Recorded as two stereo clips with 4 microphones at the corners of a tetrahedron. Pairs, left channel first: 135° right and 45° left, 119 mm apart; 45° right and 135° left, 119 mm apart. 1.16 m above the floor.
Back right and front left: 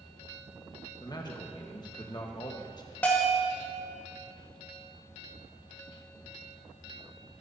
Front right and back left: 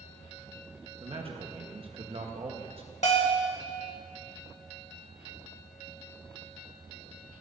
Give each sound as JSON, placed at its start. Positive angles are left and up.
{"t": 1.0, "sound": "a man speaking", "azimuth_deg": 170, "distance_m": 1.4}
{"t": 3.0, "sound": "a bell", "azimuth_deg": -60, "distance_m": 1.8}